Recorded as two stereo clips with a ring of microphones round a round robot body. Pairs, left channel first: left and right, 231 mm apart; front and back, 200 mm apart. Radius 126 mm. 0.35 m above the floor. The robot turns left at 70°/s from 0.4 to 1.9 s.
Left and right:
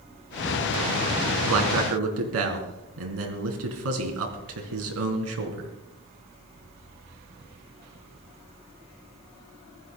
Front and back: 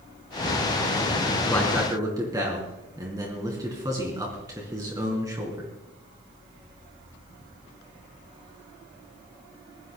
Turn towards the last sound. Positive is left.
turn(degrees=-105)